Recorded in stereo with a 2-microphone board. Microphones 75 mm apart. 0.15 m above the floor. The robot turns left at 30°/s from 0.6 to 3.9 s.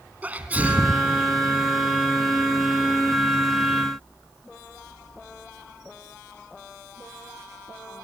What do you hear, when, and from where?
0.2 s a sneeze: 20° right (ahead or behind), 1.2 m